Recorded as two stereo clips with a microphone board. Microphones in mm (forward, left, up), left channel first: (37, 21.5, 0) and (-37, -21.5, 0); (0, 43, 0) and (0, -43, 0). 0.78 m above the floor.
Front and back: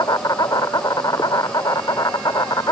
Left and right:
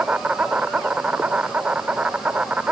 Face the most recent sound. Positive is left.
turn(degrees=-15)